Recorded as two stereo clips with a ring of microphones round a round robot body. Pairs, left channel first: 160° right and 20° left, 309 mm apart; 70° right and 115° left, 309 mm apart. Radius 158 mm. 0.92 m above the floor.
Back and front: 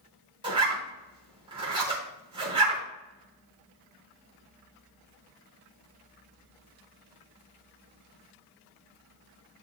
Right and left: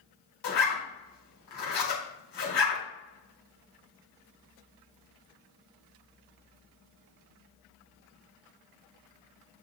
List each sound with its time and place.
0.4 s a zipper: 50° right, 4 m